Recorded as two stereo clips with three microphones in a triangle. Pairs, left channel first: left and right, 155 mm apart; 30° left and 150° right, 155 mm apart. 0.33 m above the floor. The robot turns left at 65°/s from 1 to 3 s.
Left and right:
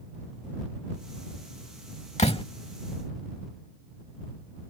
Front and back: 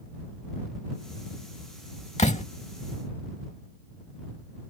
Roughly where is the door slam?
Ahead left.